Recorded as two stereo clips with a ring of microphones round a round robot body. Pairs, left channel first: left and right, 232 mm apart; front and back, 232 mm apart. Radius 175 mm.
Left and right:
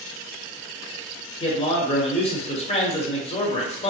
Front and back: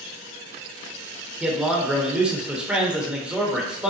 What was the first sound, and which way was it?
A man speaking, 100° left.